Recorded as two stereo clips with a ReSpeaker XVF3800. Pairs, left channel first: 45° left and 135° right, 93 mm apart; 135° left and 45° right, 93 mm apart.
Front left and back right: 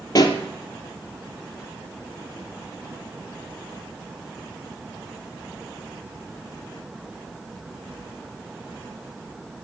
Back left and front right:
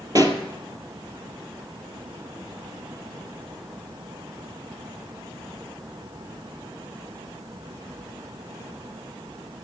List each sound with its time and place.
0.1 s a pop: straight ahead, 1.6 m